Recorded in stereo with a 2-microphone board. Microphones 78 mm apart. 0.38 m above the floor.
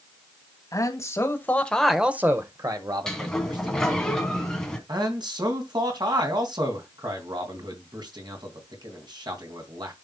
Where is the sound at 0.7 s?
45° left (ahead or behind), 2 m; by 4.1 s 70° right (ahead or behind), 3 m.